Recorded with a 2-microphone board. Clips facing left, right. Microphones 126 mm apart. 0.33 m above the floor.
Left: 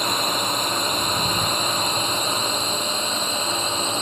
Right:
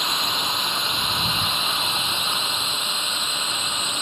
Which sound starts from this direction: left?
A drone, at 0.0 s.